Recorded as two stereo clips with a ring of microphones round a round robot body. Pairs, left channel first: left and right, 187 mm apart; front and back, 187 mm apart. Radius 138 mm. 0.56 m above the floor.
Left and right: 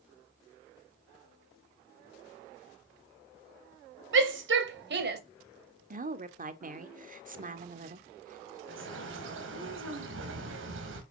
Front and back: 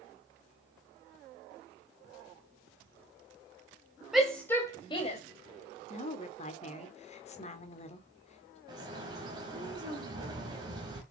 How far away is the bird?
About 3 m.